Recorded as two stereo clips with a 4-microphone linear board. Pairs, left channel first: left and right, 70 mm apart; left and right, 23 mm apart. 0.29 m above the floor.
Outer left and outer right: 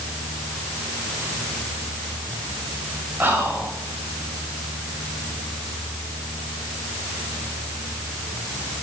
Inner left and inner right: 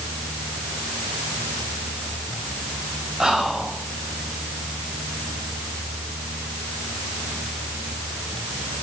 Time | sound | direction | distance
3.2 | whispering | 25° right (ahead or behind) | 1.0 m